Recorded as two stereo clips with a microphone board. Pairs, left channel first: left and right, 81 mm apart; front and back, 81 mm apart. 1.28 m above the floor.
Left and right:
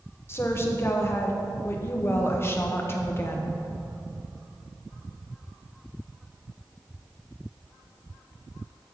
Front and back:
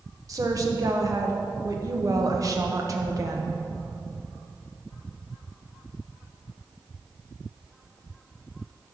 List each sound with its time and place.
0.3 s a woman speaking: 145° left, 1.0 m